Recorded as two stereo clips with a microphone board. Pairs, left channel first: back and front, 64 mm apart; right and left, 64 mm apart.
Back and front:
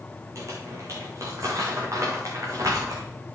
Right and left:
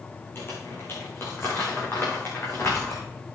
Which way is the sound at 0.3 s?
40° right.